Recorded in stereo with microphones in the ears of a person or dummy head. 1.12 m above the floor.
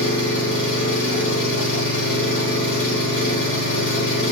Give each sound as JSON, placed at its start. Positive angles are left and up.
{"t": 0.0, "sound": "an engine running", "side_deg": 60, "distance_m": 3.5}